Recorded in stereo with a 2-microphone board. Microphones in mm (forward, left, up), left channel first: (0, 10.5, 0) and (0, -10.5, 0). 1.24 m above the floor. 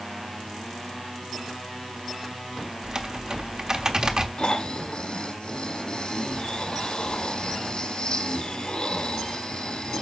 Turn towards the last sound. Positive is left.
turn(degrees=60)  # may be behind; listen again after turning